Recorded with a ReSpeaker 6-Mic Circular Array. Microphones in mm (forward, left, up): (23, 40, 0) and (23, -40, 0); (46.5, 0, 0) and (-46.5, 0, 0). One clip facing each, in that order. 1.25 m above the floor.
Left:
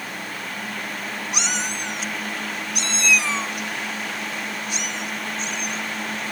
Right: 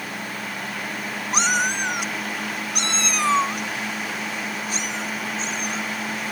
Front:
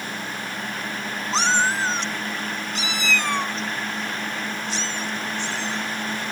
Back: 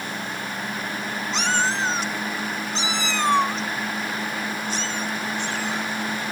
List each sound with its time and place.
1.3 s a cat meowing: 45° right; by 5.8 s 140° right